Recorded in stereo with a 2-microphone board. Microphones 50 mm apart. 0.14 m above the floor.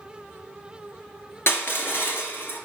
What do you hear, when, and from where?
1.5 s crushing: 55° left (ahead or behind), 2 m